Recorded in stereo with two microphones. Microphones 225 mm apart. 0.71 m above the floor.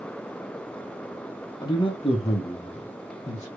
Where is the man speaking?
20° left (ahead or behind), 1.0 m; by 3.5 s 30° left (ahead or behind), 1.7 m.